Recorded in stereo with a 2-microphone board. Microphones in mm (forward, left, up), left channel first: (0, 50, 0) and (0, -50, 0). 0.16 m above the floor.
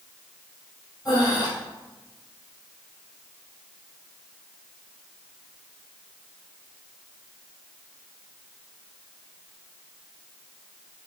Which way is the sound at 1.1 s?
45° left (ahead or behind).